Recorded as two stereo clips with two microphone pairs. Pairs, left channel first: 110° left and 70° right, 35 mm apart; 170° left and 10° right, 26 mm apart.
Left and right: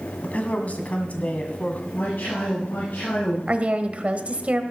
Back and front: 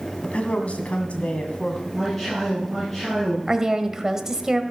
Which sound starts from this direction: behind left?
A man speaking, at 0.2 s.